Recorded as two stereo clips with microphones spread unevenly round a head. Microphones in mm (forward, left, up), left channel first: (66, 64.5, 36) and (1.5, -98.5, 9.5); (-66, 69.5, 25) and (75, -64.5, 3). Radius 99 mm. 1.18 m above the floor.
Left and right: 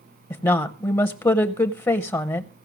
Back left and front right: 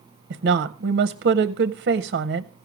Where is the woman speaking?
5° right, 0.7 m.